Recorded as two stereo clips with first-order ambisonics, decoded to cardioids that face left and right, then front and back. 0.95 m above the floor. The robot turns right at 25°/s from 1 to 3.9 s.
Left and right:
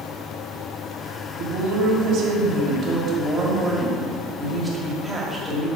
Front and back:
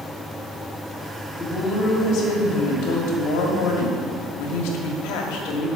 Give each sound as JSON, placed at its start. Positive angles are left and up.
{"t": 1.4, "sound": "a woman speaking", "azimuth_deg": -65, "distance_m": 1.7}